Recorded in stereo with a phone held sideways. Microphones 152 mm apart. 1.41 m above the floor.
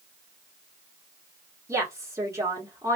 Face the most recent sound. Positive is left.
turn(degrees=-20)  # may be behind; listen again after turning